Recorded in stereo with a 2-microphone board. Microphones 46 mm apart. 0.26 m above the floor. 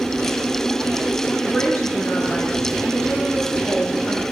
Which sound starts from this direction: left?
A woman speaking, at 1.4 s.